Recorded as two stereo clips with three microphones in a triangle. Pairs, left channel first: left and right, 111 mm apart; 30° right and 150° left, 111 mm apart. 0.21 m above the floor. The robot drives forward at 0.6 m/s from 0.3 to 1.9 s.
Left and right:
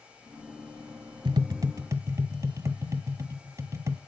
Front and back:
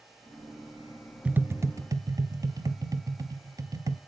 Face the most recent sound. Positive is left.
turn(degrees=-150)